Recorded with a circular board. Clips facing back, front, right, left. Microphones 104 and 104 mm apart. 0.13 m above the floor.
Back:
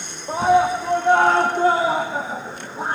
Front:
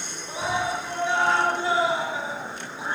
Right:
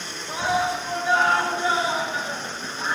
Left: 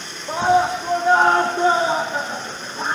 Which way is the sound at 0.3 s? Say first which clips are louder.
Back 11 dB, left 7 dB; 135° left.